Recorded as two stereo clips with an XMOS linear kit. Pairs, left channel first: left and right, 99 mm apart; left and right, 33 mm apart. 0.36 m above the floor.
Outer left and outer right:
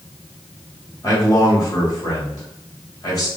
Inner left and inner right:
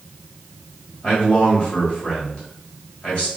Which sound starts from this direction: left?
A man speaking, at 1.0 s.